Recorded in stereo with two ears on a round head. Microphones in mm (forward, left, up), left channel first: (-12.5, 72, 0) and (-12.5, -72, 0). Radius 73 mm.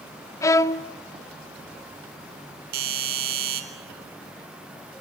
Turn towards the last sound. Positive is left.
turn(degrees=-60)  # may be behind; listen again after turning